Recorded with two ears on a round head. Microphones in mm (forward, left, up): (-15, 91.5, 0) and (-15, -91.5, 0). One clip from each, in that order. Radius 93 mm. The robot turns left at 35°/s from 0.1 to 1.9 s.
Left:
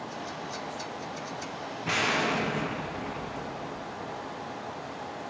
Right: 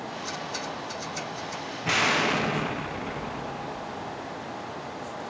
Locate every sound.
1.9 s an explosion: 15° right (ahead or behind), 0.6 m; by 4.3 s 20° right (ahead or behind), 0.6 m